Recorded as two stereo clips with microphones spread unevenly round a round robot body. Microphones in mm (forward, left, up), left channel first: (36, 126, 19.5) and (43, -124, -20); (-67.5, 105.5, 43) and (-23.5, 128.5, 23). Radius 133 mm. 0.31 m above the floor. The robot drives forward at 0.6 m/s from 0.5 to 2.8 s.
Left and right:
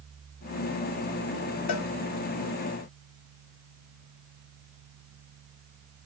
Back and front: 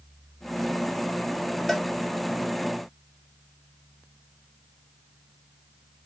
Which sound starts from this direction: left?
A cowbell, at 1.7 s.